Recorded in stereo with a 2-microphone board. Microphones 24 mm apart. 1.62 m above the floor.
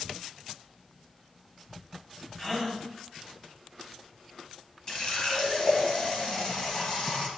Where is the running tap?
40° left (ahead or behind), 1.3 m.